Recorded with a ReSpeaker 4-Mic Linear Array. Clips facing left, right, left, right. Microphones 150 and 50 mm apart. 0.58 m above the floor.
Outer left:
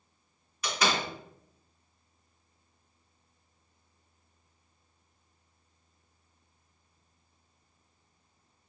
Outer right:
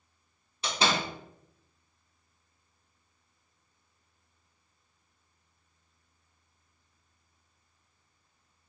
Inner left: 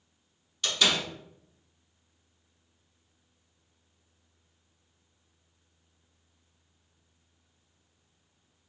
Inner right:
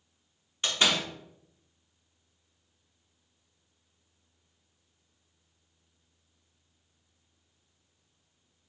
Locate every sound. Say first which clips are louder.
0.6 s a door slam: outer right 1 dB, even; 30° right (ahead or behind), 0.9 m